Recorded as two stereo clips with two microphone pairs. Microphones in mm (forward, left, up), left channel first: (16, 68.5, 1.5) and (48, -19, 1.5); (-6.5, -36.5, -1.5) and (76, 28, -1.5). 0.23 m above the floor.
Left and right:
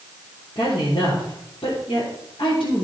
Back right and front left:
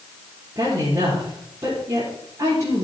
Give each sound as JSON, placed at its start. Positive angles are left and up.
{"t": 0.6, "sound": "a woman speaking", "azimuth_deg": 100, "distance_m": 4.5}